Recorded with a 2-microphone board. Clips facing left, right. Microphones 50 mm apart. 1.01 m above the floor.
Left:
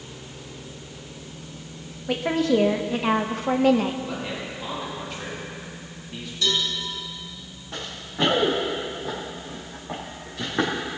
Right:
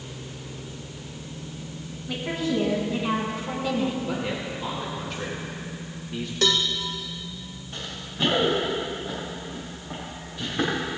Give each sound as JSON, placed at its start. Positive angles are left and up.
{"t": 2.1, "sound": "a woman speaking", "side_deg": 60, "distance_m": 1.5}
{"t": 4.1, "sound": "a man speaking", "side_deg": 0, "distance_m": 1.9}
{"t": 6.4, "sound": "a cowbell", "side_deg": -60, "distance_m": 1.5}
{"t": 7.7, "sound": "running footsteps", "side_deg": 75, "distance_m": 4.5}